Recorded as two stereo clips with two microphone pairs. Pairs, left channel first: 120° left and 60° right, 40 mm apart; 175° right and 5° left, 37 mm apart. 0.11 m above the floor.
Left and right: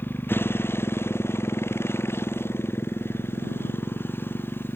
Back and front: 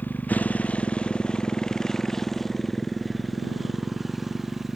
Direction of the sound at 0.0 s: 150° left.